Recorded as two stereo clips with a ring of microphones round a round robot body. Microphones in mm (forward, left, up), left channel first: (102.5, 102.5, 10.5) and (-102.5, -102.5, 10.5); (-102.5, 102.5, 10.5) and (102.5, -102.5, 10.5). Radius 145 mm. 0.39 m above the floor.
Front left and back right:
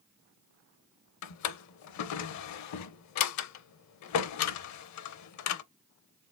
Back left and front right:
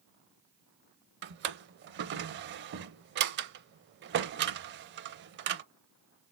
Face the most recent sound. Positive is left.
turn(degrees=10)